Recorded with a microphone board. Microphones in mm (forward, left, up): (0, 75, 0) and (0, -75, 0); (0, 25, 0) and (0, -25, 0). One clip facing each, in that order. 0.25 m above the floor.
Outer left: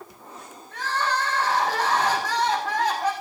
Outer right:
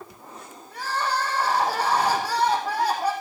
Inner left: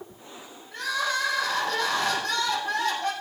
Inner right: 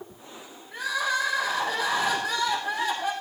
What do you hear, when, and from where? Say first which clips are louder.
0.7 s crying: even, inner right 1 dB; 10° right (ahead or behind), 4.5 m